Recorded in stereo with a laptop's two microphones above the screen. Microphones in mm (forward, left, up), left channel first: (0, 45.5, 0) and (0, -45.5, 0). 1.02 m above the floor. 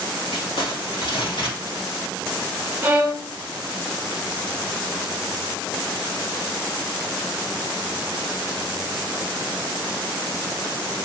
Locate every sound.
0.3 s crumpling: 80° left, 1.8 m
2.8 s a violin: 20° right (ahead or behind), 0.8 m